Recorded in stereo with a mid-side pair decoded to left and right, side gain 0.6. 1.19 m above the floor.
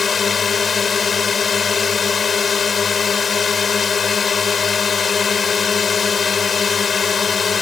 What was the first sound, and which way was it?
A drone, 30° left.